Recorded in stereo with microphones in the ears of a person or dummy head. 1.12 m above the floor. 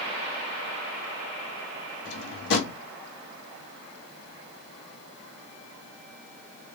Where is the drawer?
70° left (ahead or behind), 1.6 m.